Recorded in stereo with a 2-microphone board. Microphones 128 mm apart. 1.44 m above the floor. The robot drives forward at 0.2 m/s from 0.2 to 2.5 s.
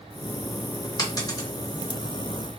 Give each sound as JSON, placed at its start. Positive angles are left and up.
{"t": 1.0, "sound": "a dropped coin", "side_deg": 30, "distance_m": 0.9}